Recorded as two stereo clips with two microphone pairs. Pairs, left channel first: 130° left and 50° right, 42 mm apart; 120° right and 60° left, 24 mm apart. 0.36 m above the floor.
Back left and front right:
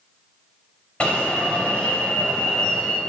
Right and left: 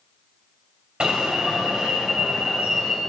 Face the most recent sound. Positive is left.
turn(degrees=80)